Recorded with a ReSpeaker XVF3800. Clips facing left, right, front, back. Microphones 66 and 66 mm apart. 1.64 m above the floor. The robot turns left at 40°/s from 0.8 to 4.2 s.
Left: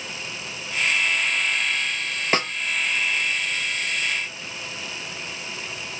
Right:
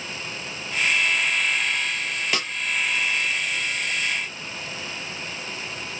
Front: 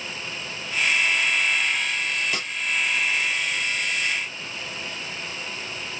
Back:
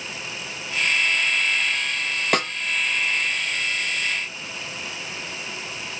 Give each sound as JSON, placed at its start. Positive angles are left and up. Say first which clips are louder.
{"t": 2.3, "sound": "a snare drum", "louder": "left 8 dB, back 8 dB", "azimuth_deg": 145, "distance_m": 0.6}